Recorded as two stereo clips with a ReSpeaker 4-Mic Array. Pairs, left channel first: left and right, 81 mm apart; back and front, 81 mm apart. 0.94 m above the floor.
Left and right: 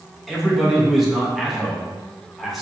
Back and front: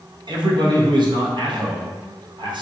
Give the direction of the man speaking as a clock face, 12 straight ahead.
12 o'clock.